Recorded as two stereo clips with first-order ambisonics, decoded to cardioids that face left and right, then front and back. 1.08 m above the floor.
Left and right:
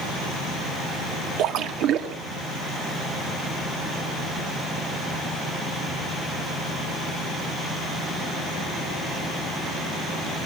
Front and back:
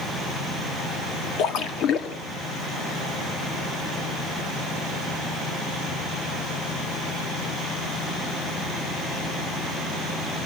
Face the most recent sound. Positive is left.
turn(degrees=-45)